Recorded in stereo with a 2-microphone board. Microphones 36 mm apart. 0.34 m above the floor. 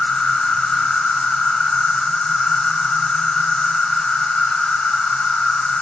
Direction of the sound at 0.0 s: 30° left (ahead or behind).